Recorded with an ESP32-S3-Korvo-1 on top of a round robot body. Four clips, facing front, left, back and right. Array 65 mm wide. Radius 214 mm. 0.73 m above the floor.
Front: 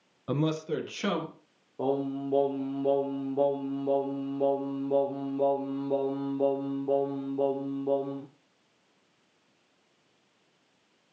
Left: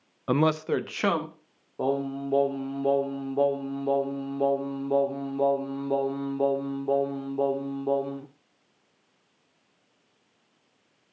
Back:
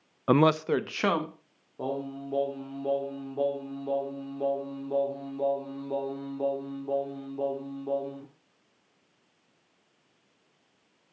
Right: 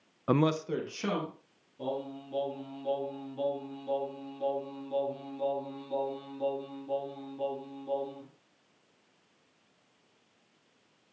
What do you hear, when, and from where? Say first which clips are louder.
0.3 s a man speaking: left 4 dB, back 7 dB; 175° right, 0.5 m; by 1.3 s 130° left, 1.5 m
1.8 s singing: left 9 dB, front 4 dB; 75° left, 0.7 m